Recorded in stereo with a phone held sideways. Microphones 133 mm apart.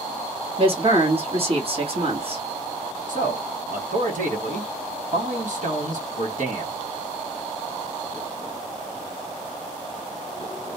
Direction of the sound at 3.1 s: 75° right (ahead or behind).